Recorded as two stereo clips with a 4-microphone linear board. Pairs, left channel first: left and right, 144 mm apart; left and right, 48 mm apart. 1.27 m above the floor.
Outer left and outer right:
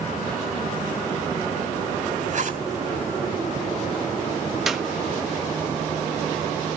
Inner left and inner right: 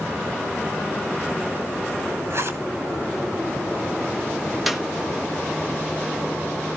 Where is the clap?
Centre (ahead or behind), 1.3 m.